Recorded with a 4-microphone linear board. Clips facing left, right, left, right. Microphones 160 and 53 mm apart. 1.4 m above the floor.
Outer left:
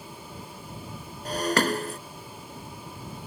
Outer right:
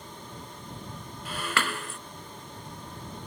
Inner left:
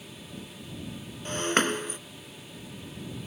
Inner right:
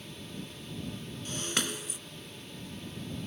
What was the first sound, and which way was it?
Breaking glass, 40° left (ahead or behind).